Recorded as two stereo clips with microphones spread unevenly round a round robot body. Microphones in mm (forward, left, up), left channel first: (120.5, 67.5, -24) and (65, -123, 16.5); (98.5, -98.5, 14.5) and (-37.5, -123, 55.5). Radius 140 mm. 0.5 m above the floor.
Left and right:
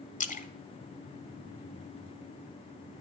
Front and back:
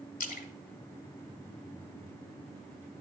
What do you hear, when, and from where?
0.2 s a splash: 20° left, 0.8 m